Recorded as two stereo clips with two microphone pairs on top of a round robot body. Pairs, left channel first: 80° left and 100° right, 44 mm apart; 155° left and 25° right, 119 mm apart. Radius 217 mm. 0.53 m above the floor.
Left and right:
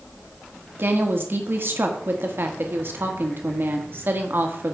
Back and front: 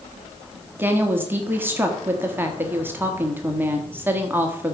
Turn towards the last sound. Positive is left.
turn(degrees=-100)